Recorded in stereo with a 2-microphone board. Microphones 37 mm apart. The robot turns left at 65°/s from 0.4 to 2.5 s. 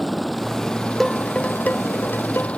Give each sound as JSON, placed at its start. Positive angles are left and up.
{"t": 0.0, "sound": "a helicopter", "azimuth_deg": 180}
{"t": 1.0, "sound": "dishes clattering", "side_deg": 5}